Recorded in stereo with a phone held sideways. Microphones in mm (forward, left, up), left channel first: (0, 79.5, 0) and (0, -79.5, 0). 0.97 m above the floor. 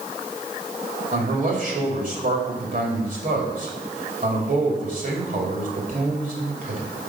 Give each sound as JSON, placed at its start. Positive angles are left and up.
{"t": 1.1, "sound": "a man speaking", "side_deg": -50, "distance_m": 2.5}